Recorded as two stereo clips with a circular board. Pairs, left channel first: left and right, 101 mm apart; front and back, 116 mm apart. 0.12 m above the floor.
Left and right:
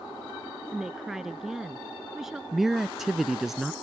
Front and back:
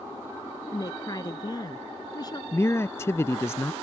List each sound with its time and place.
0.7 s a woman speaking: 10° right
2.5 s a man speaking: 10° right